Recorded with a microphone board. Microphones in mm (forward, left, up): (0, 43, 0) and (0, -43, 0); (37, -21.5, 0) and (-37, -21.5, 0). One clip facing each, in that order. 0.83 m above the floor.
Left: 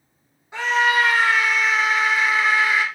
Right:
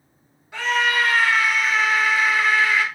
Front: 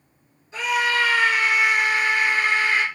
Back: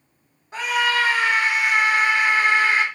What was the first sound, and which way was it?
A scream, 155° left.